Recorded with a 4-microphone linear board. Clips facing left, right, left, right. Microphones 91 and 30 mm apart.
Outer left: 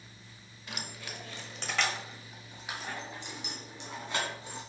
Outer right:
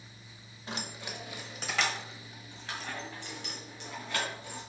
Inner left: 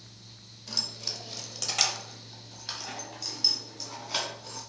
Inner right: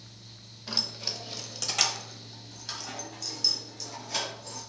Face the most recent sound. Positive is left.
turn(degrees=25)  # may be behind; listen again after turning